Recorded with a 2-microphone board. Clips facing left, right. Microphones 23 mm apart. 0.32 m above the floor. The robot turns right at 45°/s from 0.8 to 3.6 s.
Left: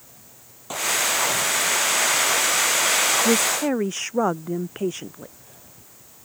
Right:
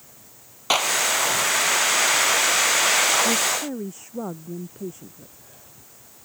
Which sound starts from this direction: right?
A clap, at 0.7 s.